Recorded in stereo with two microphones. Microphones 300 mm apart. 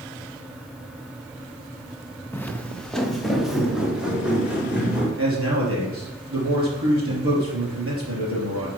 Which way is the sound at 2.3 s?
5° left (ahead or behind).